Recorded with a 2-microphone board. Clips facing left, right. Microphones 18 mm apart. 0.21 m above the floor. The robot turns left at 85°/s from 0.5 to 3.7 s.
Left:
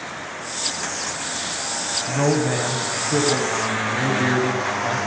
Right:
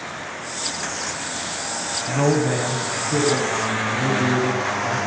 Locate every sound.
2.1 s a man speaking: 155° right, 1.4 m; by 5.0 s 70° left, 1.4 m